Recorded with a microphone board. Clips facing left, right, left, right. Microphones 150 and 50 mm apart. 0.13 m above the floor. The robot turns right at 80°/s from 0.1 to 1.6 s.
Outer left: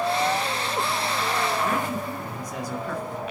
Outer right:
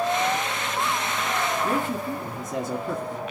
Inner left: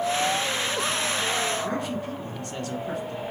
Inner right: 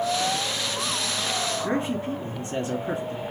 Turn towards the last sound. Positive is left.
turn(degrees=-25)  # may be behind; listen again after turning